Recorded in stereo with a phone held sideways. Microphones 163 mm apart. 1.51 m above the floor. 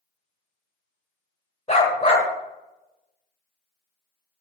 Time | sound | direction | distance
1.7 | a dog barking | 40° left (ahead or behind) | 1.6 m